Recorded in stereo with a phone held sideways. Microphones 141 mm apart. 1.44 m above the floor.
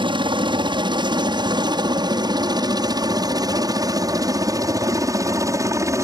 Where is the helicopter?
35° right (ahead or behind); by 6.0 s 20° right (ahead or behind).